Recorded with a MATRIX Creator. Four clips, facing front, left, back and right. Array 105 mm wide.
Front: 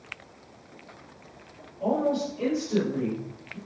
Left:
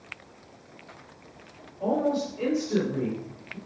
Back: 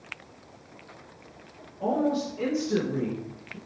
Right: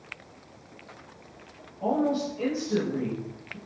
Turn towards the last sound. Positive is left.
turn(degrees=165)